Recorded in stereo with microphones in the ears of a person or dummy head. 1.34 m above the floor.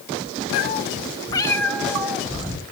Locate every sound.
0.5 s a cat meowing: 55° left (ahead or behind), 1.0 m; by 2.6 s 15° right (ahead or behind), 1.8 m